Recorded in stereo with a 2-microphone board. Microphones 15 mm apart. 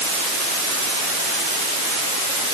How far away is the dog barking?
No dog barking in this recording.